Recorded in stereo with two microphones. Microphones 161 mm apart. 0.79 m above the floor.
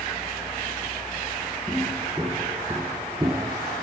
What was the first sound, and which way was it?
Footsteps, centre (ahead or behind).